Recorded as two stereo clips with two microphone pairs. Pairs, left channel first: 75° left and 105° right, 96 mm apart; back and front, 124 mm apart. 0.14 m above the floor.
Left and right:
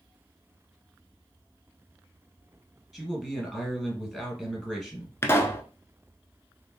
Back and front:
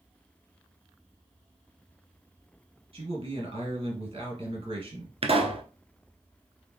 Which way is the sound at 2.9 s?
20° right.